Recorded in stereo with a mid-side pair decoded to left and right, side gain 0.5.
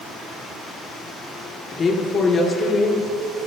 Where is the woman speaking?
40° left, 2.5 m; by 3.1 s 45° left, 3.5 m.